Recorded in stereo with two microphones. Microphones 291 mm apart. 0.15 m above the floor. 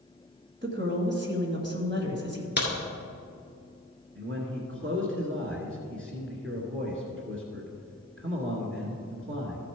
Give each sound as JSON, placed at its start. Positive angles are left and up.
{"t": 0.6, "sound": "a woman speaking", "side_deg": -40, "distance_m": 1.7}
{"t": 2.6, "sound": "a crack", "side_deg": 35, "distance_m": 2.0}
{"t": 4.2, "sound": "a man speaking", "side_deg": -45, "distance_m": 1.8}